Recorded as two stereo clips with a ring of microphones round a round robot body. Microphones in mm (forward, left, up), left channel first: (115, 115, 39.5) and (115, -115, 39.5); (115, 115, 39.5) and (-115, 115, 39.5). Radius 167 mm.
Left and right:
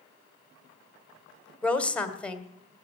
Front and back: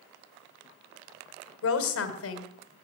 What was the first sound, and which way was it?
A woman speaking, 5° left.